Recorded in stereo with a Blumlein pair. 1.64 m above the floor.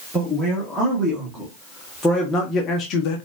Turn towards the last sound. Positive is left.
turn(degrees=50)